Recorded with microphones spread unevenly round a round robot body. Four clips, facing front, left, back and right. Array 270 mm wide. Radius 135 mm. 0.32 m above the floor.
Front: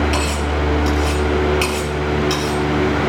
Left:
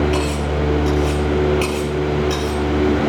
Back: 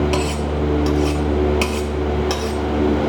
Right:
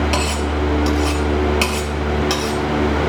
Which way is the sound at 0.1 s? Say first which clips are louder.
Even, even; 130° right.